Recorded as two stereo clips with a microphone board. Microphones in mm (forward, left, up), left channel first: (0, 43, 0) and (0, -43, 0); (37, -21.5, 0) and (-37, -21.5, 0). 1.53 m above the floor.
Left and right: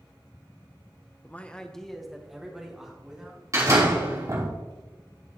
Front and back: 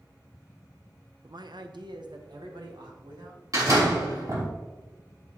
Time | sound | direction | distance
1.2 | a man speaking | 155° left | 0.6 m
3.5 | a door slam | 140° right | 3 m